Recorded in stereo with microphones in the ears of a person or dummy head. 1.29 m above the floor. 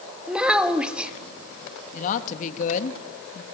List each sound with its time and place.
0.3 s a child speaking: 5° right (ahead or behind), 1.7 m
1.9 s a woman speaking: 45° left (ahead or behind), 1.5 m